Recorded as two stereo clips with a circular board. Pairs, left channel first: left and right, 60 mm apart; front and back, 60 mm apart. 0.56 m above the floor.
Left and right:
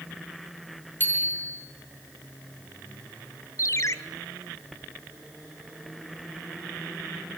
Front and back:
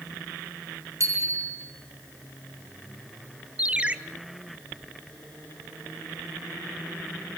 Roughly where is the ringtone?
Behind left.